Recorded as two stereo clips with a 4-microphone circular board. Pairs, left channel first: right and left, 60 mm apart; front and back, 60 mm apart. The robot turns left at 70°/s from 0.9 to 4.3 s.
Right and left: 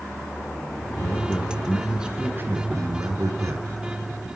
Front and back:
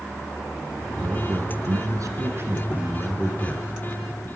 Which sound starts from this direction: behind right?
A man speaking, at 1.0 s.